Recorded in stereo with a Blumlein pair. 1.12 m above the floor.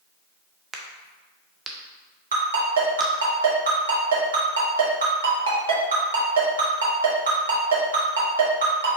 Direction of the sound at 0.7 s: 10° right.